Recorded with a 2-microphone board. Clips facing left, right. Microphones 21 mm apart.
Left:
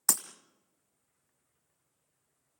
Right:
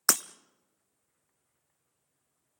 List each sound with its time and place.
0.1 s breaking glass: 70° right (ahead or behind), 0.9 m